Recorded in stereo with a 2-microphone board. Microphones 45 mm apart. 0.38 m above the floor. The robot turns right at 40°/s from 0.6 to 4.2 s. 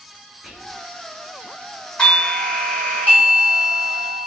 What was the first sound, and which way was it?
Whispering, centre (ahead or behind).